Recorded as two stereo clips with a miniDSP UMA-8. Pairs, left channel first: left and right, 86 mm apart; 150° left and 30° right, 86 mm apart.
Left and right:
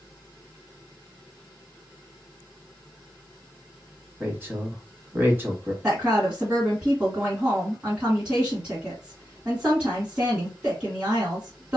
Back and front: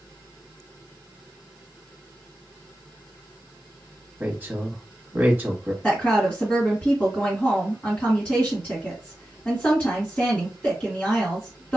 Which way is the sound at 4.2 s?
60° right.